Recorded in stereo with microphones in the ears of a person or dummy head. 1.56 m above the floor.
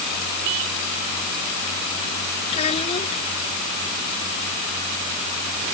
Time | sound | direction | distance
2.5 | a child speaking | 35° left (ahead or behind) | ?